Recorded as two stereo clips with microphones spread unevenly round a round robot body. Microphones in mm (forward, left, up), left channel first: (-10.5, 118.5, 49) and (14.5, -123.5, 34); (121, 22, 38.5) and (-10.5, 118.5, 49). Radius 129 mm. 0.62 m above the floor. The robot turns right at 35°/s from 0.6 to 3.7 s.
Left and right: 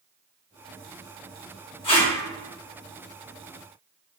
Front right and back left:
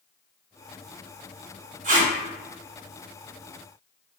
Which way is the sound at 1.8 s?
155° left.